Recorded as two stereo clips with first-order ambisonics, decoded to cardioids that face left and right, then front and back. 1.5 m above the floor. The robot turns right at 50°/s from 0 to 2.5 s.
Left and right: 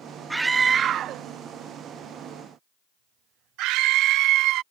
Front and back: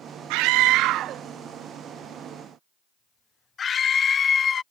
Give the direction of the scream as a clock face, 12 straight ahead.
6 o'clock.